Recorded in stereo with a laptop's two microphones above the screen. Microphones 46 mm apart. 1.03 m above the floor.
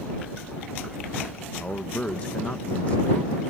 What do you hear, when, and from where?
1.6 s a man speaking: 30° left (ahead or behind)